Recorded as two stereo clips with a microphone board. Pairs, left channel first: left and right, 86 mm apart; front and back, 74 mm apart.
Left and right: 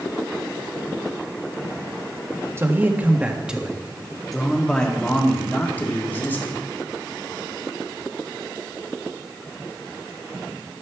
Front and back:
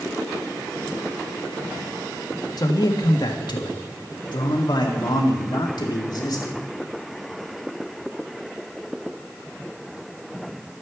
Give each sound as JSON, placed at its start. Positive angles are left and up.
{"t": 2.6, "sound": "a man speaking", "azimuth_deg": -30, "distance_m": 1.4}